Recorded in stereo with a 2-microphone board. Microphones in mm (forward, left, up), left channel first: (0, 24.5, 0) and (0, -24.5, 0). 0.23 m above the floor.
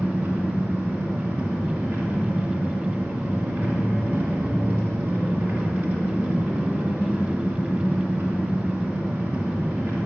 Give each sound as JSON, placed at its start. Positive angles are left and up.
{"t": 0.0, "sound": "an engine running", "side_deg": -50, "distance_m": 2.5}